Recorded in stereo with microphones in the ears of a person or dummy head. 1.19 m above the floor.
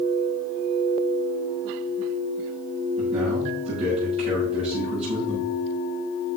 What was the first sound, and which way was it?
A man speaking, 30° right (ahead or behind).